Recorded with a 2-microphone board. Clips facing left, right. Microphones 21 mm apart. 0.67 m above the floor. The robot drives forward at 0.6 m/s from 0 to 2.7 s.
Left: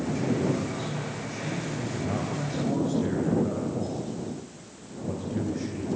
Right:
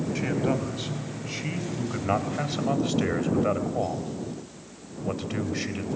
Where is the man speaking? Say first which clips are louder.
Right 1 dB; 45° right (ahead or behind), 4.5 m; by 5.9 s 60° right (ahead or behind), 3.5 m.